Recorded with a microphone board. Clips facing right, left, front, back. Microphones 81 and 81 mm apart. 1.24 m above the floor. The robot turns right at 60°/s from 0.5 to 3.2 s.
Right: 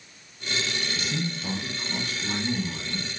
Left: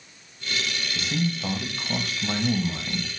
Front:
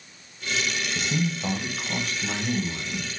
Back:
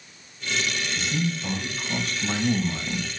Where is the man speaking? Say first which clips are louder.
Left 3 dB, front 1 dB; 25° left, 0.8 m; by 3.1 s 150° left, 0.8 m.